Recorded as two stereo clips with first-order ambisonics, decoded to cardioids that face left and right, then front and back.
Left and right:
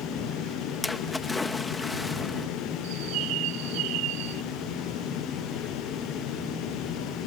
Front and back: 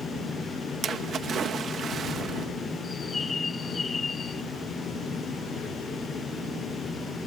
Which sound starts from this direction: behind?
A splash, at 0.8 s.